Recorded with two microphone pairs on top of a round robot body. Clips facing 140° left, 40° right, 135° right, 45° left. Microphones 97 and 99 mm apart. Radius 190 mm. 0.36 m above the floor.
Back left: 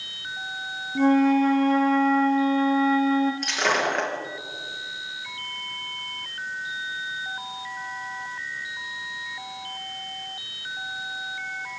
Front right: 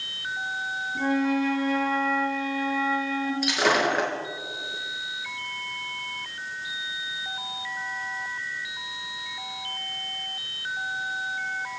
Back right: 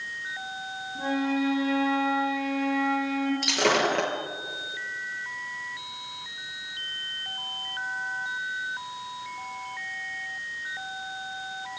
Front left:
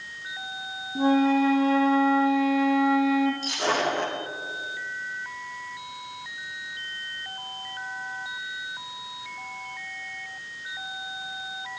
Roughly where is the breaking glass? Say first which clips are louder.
Front right 1 dB, back right 2 dB; behind right.